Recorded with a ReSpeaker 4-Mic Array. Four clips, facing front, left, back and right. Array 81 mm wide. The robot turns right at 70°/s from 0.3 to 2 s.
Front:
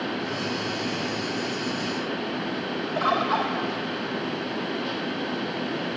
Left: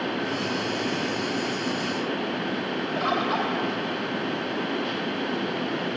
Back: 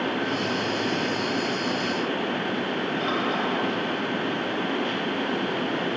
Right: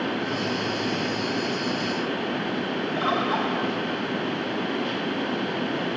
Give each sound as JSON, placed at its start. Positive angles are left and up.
{"t": 3.0, "sound": "a bird", "azimuth_deg": 30, "distance_m": 4.0}